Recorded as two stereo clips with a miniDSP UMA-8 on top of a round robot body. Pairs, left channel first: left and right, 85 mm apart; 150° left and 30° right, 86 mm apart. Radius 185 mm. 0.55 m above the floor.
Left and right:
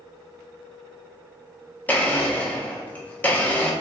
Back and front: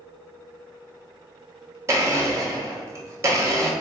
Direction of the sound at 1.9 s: 20° left.